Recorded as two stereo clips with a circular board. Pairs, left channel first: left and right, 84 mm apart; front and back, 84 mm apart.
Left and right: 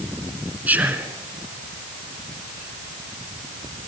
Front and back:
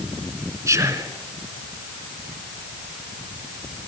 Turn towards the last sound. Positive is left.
turn(degrees=-150)